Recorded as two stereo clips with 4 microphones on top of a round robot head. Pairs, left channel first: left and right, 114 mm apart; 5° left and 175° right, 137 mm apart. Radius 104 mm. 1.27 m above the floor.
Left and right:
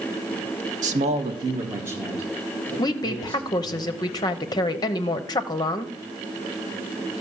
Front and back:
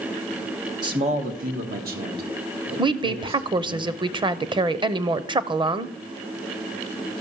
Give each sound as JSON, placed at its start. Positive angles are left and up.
{"t": 0.8, "sound": "a man speaking", "azimuth_deg": -110, "distance_m": 1.1}
{"t": 2.8, "sound": "a woman speaking", "azimuth_deg": 135, "distance_m": 0.8}